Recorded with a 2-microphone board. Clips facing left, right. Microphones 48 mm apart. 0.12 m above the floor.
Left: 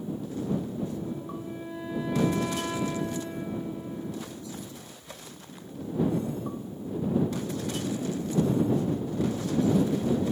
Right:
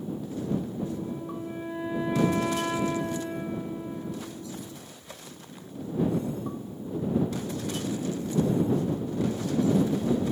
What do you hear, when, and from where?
0.8 s a flute: 20° right (ahead or behind)